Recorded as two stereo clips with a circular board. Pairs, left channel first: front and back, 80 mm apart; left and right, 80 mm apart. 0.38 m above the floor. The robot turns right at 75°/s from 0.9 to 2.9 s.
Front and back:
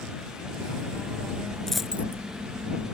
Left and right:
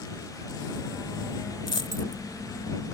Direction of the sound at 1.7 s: 85° left.